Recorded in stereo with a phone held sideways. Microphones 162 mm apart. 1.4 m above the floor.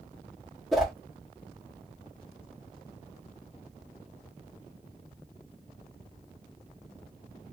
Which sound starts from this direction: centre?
A whoosh, at 0.7 s.